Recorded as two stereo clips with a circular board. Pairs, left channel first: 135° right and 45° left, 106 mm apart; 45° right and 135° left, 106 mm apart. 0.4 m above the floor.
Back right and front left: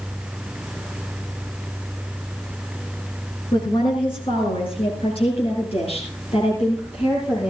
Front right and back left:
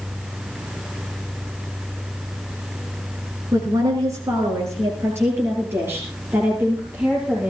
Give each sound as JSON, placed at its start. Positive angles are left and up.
{"t": 3.5, "sound": "a woman speaking", "azimuth_deg": -175, "distance_m": 4.0}